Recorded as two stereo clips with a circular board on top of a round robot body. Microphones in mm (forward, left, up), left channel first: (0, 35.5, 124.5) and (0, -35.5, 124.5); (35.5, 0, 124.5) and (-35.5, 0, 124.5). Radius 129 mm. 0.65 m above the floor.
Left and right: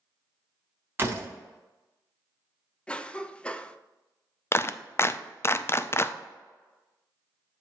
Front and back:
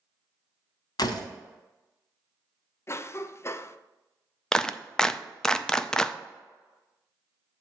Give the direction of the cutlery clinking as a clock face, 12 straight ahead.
I don't hear cutlery clinking.